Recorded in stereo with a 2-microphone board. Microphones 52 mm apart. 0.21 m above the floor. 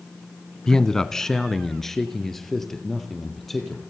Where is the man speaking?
15° left (ahead or behind), 1.2 m; by 3.8 s 5° left (ahead or behind), 5 m.